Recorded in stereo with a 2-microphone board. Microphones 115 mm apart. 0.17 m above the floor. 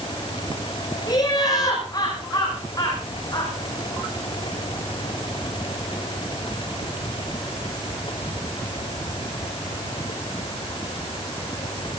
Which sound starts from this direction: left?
Laughter, at 1.1 s.